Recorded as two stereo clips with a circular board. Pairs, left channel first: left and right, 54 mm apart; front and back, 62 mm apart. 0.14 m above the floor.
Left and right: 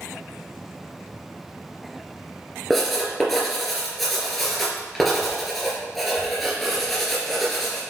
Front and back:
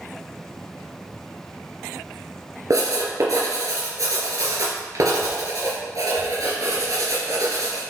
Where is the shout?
I don't hear a shout.